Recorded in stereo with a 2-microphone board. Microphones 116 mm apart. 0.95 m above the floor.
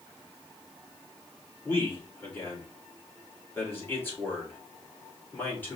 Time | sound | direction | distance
1.6 | a man speaking | 15° left (ahead or behind) | 2 m